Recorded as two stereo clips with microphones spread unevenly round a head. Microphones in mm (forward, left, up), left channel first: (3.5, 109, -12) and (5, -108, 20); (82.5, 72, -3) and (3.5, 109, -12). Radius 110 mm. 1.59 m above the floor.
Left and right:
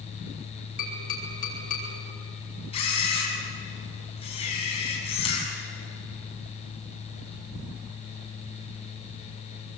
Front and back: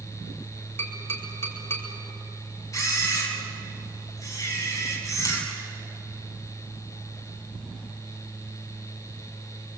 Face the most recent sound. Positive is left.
turn(degrees=25)